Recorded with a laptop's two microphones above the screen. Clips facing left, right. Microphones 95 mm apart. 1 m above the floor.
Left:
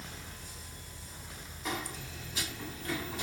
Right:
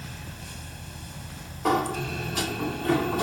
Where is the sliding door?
65° right (ahead or behind).